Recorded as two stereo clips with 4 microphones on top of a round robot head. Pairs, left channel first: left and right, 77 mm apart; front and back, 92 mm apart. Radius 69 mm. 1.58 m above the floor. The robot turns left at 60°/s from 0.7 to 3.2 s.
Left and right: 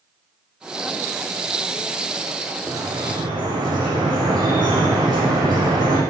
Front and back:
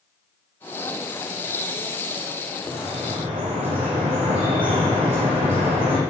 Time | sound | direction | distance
2.6 | dripping | 115° right | 9 m